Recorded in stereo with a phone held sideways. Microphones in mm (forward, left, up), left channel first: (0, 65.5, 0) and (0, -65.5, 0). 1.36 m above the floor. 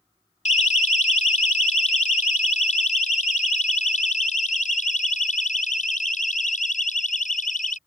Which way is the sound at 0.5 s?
60° left (ahead or behind).